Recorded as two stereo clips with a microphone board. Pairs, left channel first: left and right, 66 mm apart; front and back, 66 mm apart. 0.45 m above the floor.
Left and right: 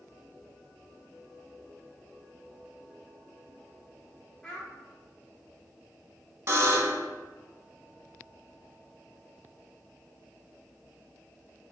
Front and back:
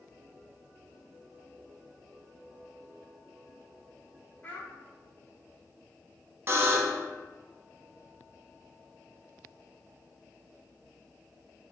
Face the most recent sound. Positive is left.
turn(degrees=-130)